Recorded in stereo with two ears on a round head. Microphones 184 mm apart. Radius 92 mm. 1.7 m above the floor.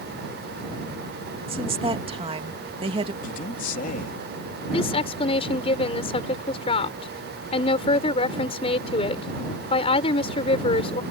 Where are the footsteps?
No footsteps in this recording.